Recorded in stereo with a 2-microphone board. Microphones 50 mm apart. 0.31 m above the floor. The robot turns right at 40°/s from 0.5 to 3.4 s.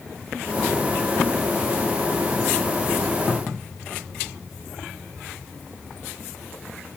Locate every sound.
Only background noise.